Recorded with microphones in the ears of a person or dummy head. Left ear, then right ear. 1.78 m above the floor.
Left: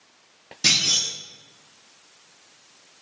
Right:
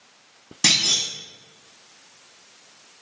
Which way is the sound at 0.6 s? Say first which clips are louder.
Right 1 dB; 35° right (ahead or behind).